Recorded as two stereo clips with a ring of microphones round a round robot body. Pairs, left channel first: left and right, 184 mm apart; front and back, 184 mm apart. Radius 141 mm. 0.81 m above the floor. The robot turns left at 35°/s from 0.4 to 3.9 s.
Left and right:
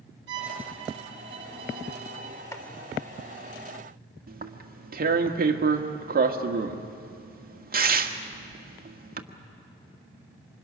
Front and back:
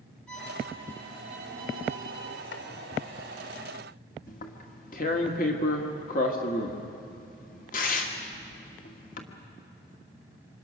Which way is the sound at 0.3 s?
85° right.